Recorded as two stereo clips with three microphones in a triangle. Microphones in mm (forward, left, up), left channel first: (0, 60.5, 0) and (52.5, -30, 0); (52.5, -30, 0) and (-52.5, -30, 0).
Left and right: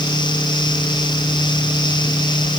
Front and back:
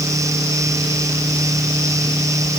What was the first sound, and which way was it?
Only background noise.